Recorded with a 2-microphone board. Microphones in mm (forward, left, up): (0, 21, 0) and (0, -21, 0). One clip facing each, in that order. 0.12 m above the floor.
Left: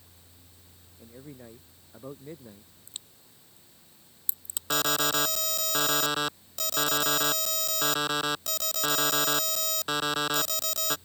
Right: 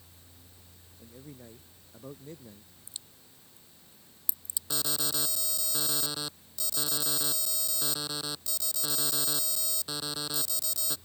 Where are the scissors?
No scissors in this recording.